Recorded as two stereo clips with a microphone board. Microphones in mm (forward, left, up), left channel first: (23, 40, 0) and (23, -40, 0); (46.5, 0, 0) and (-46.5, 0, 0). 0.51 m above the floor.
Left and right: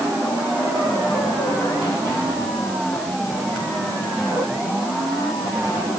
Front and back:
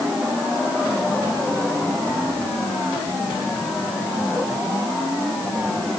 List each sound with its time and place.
Only background noise.